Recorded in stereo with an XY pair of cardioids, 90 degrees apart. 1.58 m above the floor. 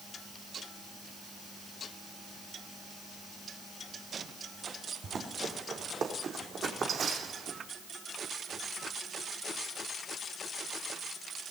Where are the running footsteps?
55° right, 5 m; by 7.6 s 60° right, 4 m.